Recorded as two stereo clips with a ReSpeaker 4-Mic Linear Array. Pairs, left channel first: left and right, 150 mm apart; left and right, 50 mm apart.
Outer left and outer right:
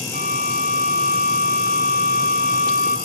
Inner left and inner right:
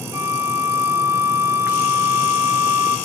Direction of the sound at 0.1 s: 80° right.